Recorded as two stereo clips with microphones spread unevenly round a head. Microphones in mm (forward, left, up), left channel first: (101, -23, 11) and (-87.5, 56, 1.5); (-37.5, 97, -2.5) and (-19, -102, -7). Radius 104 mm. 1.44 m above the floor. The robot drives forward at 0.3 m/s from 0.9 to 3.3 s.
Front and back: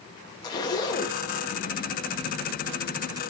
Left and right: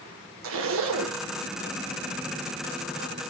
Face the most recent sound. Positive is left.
turn(degrees=-120)